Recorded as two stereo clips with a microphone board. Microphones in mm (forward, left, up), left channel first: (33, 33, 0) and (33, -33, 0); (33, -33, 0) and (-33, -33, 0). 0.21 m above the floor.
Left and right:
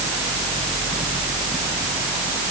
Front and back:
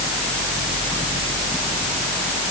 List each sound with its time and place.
Only background noise.